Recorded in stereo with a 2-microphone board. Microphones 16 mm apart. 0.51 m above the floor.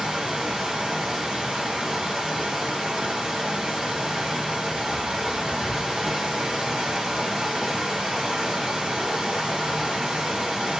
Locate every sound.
0.0 s running water: 75° right (ahead or behind), 2.5 m